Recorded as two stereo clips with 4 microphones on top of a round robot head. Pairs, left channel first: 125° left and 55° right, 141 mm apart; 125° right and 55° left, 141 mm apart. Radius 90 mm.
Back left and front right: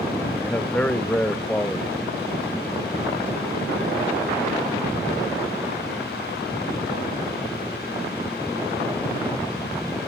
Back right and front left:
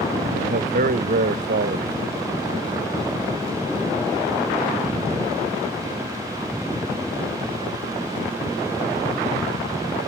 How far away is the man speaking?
About 0.7 m.